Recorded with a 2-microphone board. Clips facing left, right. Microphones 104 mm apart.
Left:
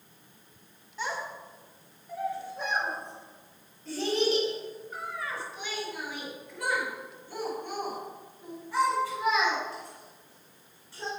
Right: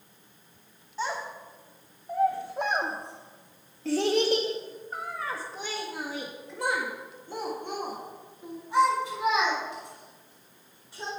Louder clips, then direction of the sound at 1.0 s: Right 2 dB; 20° right (ahead or behind).